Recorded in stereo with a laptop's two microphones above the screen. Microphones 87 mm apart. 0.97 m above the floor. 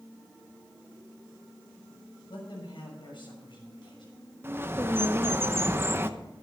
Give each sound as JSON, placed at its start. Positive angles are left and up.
{"t": 2.3, "sound": "a man speaking", "side_deg": 65, "distance_m": 6.0}
{"t": 4.4, "sound": "a bird", "side_deg": -25, "distance_m": 0.8}